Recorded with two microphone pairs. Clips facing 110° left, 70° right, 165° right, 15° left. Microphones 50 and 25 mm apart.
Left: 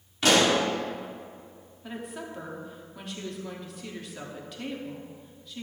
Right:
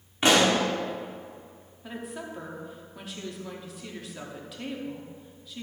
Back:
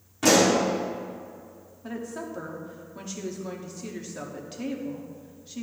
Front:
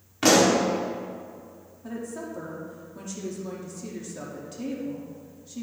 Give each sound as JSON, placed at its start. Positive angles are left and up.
{"t": 0.2, "sound": "a pop", "azimuth_deg": -10, "distance_m": 1.5}
{"t": 1.8, "sound": "a woman speaking", "azimuth_deg": -160, "distance_m": 1.1}